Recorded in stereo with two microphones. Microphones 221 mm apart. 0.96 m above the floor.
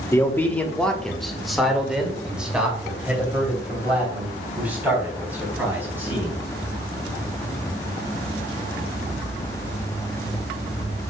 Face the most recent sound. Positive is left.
turn(degrees=-10)  # may be behind; listen again after turning